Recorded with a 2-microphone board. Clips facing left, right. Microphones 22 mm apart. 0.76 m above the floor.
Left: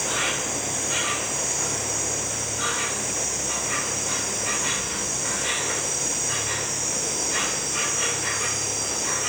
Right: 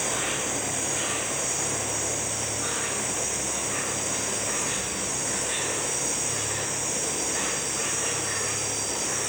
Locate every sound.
0.0 s an insect: 60° left (ahead or behind), 3.5 m